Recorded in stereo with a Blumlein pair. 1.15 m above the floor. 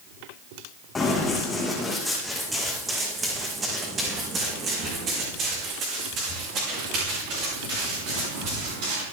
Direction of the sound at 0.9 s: 15° left.